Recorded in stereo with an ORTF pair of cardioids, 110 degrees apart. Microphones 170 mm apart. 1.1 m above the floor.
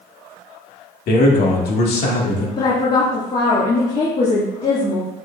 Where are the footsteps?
I don't hear footsteps.